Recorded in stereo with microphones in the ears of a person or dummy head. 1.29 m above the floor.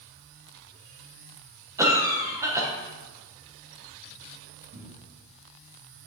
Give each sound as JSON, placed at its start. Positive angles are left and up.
{"t": 1.8, "sound": "a cough", "side_deg": -10, "distance_m": 1.1}
{"t": 4.7, "sound": "a cupboard door", "side_deg": -65, "distance_m": 1.7}